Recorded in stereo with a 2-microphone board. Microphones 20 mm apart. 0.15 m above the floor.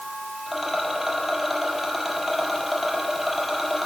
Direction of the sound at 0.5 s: 15° right (ahead or behind).